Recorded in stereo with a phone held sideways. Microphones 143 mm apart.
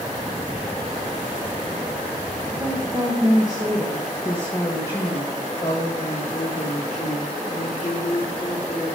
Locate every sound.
2.5 s a woman speaking: 25° right (ahead or behind), 1.6 m; by 9.0 s 50° left (ahead or behind), 4 m